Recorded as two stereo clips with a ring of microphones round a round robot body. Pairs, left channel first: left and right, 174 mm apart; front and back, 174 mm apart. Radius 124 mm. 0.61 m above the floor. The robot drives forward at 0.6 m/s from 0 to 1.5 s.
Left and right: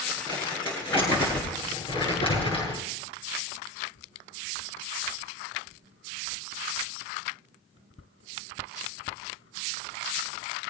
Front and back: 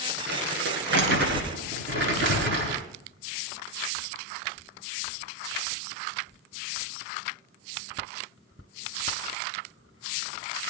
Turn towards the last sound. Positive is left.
turn(degrees=170)